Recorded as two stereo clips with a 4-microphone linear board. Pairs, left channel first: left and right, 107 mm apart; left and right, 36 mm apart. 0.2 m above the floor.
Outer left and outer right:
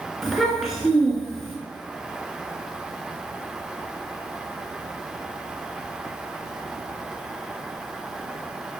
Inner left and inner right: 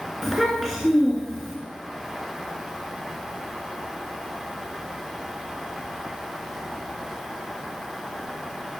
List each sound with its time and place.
0.2 s a child speaking: centre (ahead or behind), 1.7 m